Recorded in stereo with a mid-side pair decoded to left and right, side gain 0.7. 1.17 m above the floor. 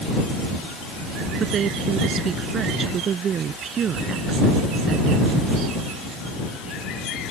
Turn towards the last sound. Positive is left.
turn(degrees=-35)